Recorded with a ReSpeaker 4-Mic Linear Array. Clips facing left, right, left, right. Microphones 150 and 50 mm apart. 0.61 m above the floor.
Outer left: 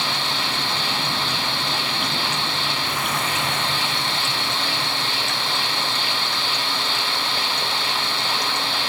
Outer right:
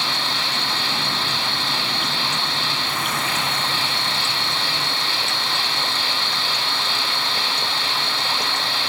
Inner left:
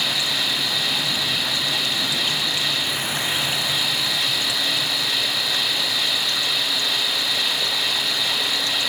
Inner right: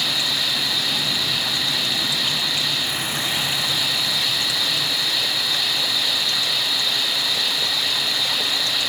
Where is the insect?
50° left (ahead or behind), 2.5 m.